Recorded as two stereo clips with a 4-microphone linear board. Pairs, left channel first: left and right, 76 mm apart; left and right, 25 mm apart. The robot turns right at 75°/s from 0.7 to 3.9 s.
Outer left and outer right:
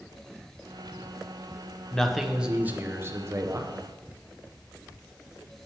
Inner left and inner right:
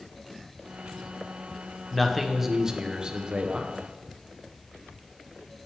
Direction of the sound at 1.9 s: 160° left.